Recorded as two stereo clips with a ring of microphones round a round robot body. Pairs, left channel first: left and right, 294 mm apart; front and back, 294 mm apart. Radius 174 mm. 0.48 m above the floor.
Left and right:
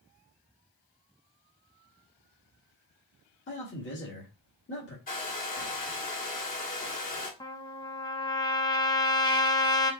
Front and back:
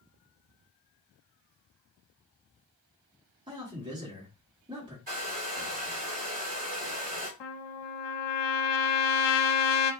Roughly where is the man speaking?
Behind left.